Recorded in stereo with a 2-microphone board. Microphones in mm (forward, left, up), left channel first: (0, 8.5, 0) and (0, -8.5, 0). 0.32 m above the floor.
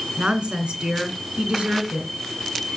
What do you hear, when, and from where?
0.2 s a woman speaking: 70° right (ahead or behind), 3 m